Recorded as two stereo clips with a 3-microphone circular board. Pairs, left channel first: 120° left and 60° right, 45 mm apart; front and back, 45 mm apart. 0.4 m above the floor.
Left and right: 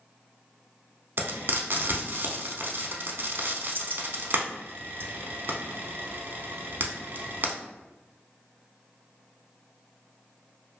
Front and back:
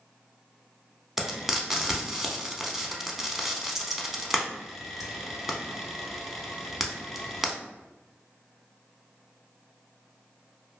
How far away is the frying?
About 0.5 m.